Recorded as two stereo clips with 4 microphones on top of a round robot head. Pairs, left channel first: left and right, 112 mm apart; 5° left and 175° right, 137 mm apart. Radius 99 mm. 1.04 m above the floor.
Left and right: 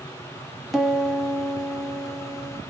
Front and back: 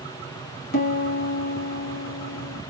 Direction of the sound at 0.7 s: Straight ahead.